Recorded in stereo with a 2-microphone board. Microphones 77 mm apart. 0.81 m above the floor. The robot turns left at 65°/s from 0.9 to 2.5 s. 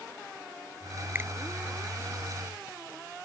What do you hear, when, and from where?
1.1 s a finger snap: 25° right (ahead or behind); by 1.3 s 35° right (ahead or behind)